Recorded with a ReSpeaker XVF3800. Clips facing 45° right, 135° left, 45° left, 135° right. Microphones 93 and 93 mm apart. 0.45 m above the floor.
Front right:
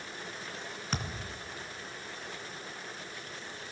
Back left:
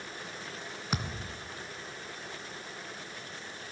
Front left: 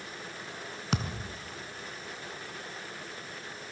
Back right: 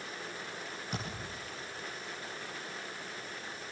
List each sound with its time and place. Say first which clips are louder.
0.9 s a thud: back left 2 dB, front left 8 dB; 55° left, 2.5 m